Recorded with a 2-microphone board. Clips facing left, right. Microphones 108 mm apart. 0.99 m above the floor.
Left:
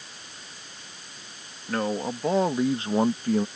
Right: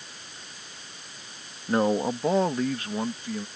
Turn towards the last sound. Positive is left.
turn(degrees=55)  # may be behind; listen again after turning